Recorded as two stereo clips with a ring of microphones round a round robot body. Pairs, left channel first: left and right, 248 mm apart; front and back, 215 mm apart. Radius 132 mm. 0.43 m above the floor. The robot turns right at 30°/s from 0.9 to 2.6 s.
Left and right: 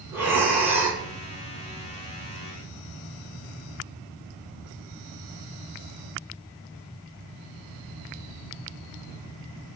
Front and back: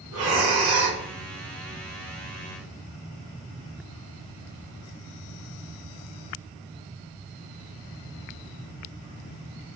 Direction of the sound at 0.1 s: 175° right.